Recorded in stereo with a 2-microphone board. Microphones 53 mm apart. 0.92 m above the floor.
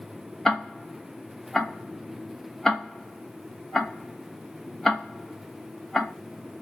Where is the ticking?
10° left (ahead or behind), 0.5 m.